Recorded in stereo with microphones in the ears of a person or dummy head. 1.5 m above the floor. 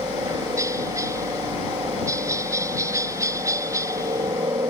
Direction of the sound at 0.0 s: 20° right (ahead or behind).